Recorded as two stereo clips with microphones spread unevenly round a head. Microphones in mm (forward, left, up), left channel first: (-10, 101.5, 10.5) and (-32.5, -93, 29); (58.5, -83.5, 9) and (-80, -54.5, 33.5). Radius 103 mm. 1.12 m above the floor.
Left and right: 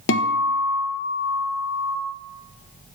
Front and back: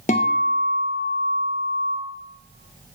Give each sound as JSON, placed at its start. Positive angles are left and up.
{"t": 0.1, "sound": "a guitar", "azimuth_deg": 50, "distance_m": 0.5}